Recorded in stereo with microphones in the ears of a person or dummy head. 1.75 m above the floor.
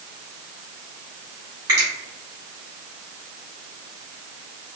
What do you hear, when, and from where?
1.7 s a finger snap: 20° right (ahead or behind), 1.6 m